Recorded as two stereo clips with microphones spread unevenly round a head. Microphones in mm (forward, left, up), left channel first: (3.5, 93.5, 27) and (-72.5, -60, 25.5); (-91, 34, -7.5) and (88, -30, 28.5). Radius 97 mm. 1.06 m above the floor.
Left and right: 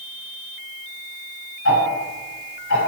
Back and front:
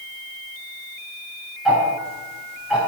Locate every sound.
1.6 s ticking: 65° left, 5.5 m